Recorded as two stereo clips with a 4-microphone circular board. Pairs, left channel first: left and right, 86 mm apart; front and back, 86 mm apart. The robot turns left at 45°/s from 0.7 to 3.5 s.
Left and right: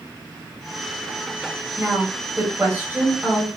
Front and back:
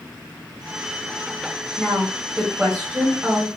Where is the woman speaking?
60° right, 1.3 m; by 3.5 s 135° right, 1.3 m.